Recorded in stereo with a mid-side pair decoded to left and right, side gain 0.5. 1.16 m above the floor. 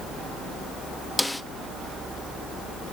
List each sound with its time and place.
1.2 s a snare drum: 10° left, 1.2 m